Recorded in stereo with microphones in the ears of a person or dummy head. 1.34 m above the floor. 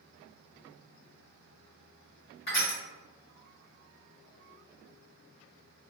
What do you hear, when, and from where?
2.5 s crushing: 40° left (ahead or behind), 1.3 m